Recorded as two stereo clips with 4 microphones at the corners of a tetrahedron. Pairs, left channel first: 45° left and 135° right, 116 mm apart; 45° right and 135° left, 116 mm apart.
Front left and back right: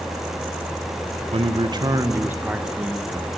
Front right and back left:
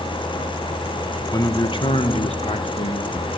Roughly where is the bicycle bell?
No bicycle bell in this recording.